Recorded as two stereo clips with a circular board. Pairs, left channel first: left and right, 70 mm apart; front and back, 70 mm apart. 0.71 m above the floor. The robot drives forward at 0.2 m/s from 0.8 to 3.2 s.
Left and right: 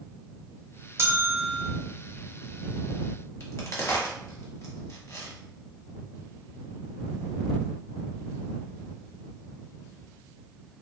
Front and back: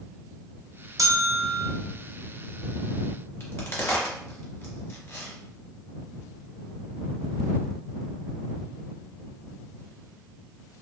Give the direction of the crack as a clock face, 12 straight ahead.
10 o'clock.